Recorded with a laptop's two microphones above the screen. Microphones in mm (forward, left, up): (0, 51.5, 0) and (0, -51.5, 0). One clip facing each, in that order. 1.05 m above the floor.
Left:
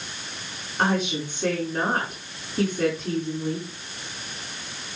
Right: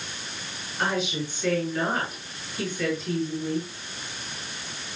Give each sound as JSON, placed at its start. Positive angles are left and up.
{"t": 0.8, "sound": "a woman speaking", "side_deg": 55, "distance_m": 6.0}